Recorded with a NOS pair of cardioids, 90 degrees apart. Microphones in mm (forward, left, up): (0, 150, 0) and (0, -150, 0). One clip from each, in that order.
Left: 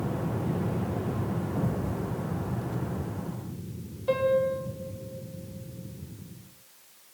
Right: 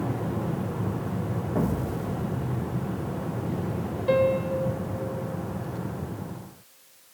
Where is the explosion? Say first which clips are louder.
Right 6 dB; 60° right, 2 m.